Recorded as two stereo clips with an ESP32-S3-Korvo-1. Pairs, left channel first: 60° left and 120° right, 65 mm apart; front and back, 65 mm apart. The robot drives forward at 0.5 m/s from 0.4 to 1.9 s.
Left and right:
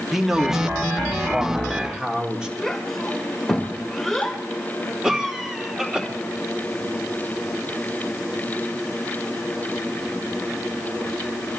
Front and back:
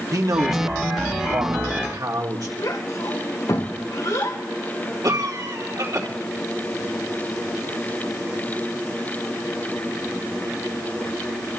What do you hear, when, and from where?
0.1 s a man speaking: 155° left, 1.9 m; by 2.5 s 160° left, 2.5 m
2.6 s a child speaking: 25° right, 2 m
5.0 s a cough: 160° left, 3 m